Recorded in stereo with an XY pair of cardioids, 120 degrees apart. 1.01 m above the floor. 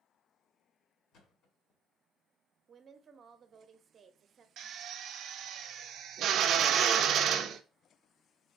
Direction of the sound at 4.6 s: 65° right.